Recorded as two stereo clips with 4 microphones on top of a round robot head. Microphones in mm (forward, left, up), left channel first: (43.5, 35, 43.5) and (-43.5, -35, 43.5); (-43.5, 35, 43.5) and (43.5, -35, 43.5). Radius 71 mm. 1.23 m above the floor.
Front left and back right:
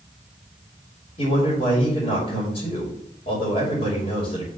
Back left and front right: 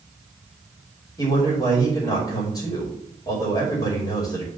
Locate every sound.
1.2 s a man speaking: 80° left, 2.5 m